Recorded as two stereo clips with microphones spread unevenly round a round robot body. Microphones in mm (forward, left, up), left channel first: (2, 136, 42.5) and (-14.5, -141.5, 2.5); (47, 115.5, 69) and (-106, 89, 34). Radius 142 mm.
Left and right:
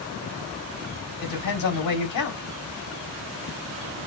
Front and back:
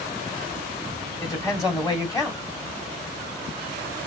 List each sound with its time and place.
1.2 s a woman speaking: 90° left, 1.3 m